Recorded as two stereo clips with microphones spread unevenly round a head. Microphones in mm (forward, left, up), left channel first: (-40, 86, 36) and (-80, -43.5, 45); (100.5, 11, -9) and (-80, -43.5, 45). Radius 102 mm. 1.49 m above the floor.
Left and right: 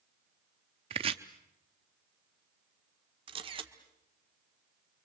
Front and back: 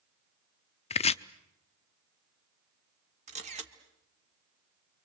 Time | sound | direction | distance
0.9 | chopping | 45° right | 0.5 m
3.3 | a camera shutter | 140° right | 1.5 m